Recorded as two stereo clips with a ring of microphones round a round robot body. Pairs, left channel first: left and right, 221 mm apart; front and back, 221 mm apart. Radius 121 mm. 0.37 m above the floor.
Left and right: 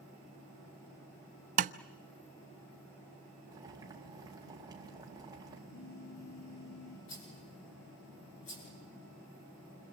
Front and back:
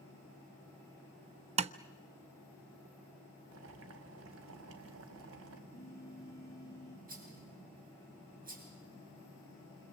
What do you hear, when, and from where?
1.6 s tapping: 130° right, 0.6 m
3.5 s boiling: 165° right, 2.5 m
5.7 s a phone buzzing: 80° left, 5 m
7.1 s a rattle: 130° left, 6.5 m